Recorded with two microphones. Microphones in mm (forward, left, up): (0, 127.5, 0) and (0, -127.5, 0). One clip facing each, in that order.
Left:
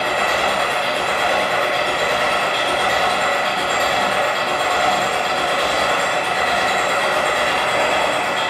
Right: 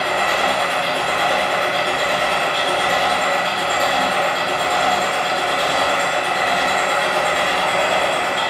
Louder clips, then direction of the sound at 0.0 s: Even; 70° left (ahead or behind).